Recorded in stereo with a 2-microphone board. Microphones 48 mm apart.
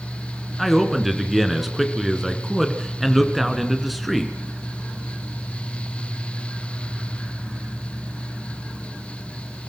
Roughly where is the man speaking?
Centre.